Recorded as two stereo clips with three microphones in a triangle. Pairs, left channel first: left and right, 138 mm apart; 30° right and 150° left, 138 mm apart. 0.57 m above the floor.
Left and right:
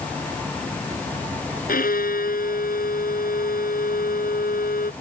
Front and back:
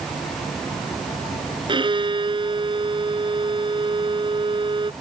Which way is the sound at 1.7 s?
95° left.